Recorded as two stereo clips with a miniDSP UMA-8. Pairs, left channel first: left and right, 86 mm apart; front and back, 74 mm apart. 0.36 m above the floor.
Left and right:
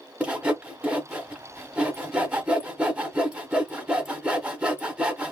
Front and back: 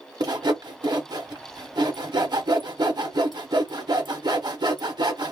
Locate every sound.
0.2 s sawing: 170° right, 0.8 m